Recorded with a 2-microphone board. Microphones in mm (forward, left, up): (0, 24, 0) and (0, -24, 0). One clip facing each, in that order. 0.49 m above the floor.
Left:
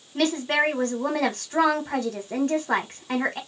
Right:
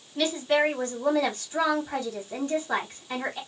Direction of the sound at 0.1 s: 50° left (ahead or behind).